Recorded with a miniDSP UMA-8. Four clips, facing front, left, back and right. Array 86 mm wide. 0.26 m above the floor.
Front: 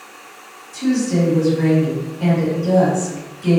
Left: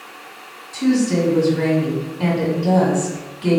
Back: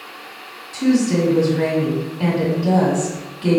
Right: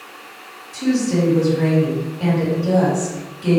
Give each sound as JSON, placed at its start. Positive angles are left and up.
{"t": 0.7, "sound": "a woman speaking", "azimuth_deg": 140, "distance_m": 1.9}